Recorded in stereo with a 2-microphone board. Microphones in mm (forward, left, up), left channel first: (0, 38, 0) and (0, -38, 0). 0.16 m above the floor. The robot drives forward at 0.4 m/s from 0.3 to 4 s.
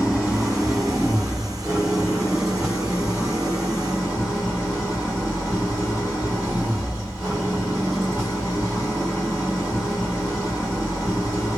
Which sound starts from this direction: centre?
An engine running, at 0.0 s.